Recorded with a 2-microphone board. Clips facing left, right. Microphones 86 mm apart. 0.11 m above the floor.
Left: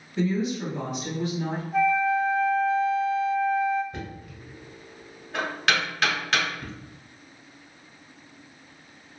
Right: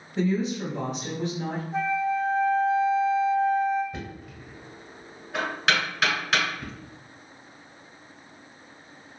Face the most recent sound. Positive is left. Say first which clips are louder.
# even
turn(degrees=-5)  # may be behind; listen again after turning